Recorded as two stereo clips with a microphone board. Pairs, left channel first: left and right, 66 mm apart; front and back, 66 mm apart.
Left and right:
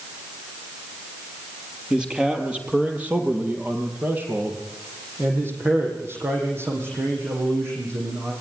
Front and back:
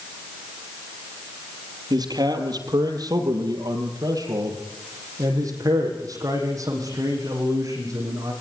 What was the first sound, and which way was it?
A man speaking, 170° right.